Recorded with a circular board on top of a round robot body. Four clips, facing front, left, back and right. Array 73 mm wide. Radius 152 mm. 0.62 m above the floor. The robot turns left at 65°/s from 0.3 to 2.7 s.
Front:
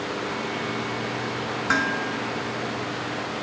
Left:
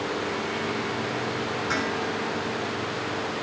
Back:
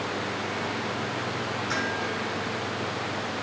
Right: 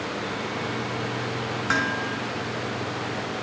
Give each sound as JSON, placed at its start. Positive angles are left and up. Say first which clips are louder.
{"t": 1.7, "sound": "dishes clattering", "louder": "right 5 dB, front 7 dB", "azimuth_deg": -45, "distance_m": 5.5}